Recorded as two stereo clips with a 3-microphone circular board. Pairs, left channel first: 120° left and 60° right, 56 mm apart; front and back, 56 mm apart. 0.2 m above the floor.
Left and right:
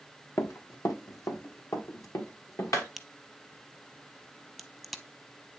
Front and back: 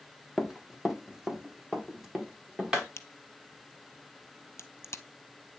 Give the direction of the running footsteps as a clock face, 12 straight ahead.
9 o'clock.